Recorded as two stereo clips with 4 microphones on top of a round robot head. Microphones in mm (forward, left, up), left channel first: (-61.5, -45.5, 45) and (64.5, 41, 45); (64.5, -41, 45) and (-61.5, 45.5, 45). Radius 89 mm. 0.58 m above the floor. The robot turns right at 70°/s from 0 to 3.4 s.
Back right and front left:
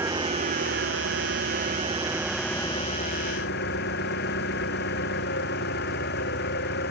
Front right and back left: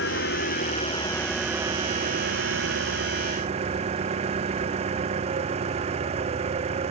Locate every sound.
0.0 s an engine running: 40° right; by 6.9 s 165° right